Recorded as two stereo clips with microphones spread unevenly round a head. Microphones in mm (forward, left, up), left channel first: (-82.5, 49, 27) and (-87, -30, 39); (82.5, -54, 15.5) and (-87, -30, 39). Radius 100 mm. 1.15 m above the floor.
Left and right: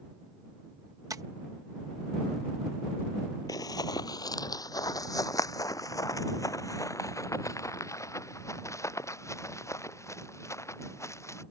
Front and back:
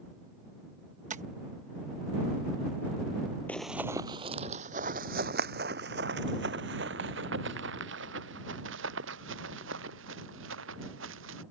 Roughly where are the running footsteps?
Left.